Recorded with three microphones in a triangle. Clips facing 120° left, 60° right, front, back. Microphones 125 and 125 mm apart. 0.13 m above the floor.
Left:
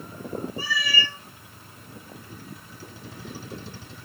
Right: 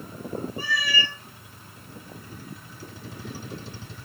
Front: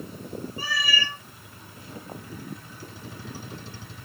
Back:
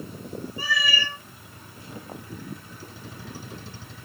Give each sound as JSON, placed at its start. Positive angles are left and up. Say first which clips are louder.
{"t": 0.6, "sound": "a cat meowing", "louder": "even, back 3 dB", "azimuth_deg": -35, "distance_m": 0.9}